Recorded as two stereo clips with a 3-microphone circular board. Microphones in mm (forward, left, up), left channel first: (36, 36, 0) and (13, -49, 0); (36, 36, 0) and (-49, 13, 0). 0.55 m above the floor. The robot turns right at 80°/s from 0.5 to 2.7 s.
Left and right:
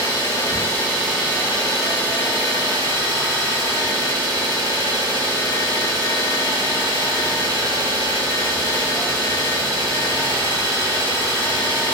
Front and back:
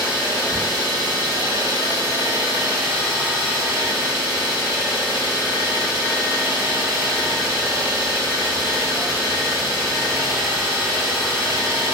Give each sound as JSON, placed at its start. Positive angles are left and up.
{"t": 0.0, "sound": "an engine running", "azimuth_deg": 120, "distance_m": 1.3}